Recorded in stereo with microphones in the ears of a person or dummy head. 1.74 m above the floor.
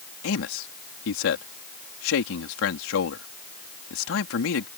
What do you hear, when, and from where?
0.2 s a man speaking: 70° left (ahead or behind)